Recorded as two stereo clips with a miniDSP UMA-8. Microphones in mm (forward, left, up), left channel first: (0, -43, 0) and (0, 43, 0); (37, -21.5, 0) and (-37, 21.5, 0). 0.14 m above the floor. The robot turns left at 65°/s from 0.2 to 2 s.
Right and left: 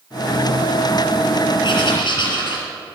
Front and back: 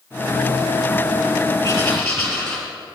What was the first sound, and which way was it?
Writing, 85° right.